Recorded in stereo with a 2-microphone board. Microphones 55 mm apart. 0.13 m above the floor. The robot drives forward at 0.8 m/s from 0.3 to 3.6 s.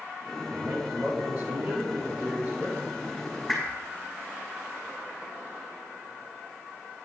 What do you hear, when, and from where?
0.5 s a man speaking: 50° right (ahead or behind), 2.5 m; by 2.8 s 35° right (ahead or behind), 3 m
3.5 s a whoosh: 10° right (ahead or behind), 5.5 m